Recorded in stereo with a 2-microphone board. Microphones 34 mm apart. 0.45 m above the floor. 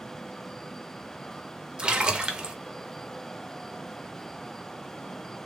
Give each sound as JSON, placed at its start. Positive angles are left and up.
{"t": 1.8, "sound": "a splash", "side_deg": -30, "distance_m": 0.5}